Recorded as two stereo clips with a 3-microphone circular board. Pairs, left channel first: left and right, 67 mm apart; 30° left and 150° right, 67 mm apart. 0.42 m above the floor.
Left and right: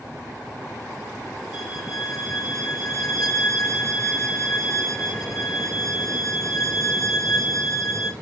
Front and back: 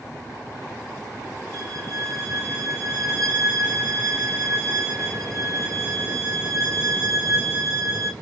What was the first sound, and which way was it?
A violin, straight behind.